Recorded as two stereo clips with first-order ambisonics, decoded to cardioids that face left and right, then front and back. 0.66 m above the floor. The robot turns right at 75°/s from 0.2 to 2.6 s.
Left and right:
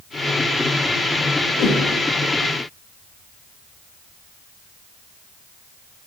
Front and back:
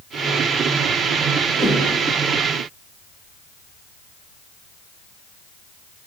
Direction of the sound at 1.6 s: 85° left.